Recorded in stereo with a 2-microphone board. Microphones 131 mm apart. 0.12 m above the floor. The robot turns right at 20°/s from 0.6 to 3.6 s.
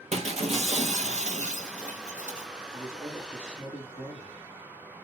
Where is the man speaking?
20° right (ahead or behind), 1.7 m; by 4.4 s 10° right (ahead or behind), 1.7 m.